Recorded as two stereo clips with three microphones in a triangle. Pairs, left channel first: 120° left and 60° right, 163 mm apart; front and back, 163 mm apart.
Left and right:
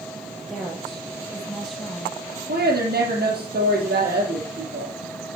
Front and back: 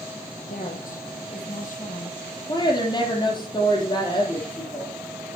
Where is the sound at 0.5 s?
30° left, 5 m.